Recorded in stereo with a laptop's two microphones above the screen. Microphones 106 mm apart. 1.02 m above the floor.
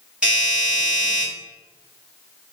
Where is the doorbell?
10° right (ahead or behind), 1.8 m.